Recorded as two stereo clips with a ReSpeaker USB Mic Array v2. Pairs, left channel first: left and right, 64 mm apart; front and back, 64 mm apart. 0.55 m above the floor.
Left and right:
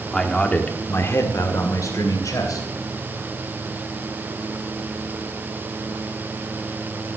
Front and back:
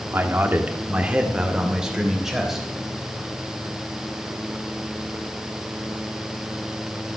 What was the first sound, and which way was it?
A man speaking, 170° left.